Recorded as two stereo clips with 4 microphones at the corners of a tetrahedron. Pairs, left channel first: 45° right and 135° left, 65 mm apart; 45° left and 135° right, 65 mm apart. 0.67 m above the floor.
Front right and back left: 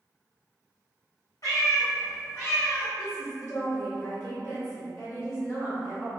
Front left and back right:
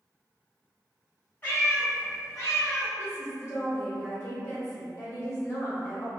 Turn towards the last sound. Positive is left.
turn(degrees=5)